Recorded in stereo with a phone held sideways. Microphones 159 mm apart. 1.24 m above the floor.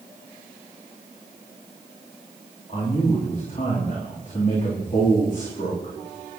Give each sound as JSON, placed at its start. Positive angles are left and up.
{"t": 2.7, "sound": "a man speaking", "side_deg": 50, "distance_m": 3.5}